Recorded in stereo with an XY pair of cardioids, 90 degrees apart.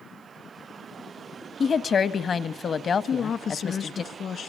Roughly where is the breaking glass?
No breaking glass in this recording.